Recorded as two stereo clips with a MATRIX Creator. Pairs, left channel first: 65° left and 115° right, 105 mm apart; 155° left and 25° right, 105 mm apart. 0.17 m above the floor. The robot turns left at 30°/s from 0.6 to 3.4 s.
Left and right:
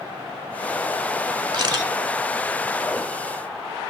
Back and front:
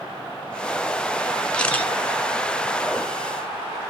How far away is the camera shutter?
About 1.7 m.